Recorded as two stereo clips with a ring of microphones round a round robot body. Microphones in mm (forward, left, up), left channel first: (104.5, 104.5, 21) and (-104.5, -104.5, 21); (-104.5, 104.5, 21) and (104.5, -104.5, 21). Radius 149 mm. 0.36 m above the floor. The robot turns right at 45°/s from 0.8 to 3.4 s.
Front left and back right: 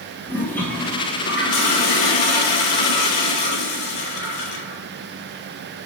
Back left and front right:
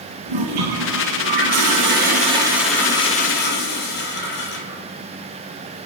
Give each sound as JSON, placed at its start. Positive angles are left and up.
{"t": 0.3, "sound": "a toilet flushing", "azimuth_deg": -40, "distance_m": 1.6}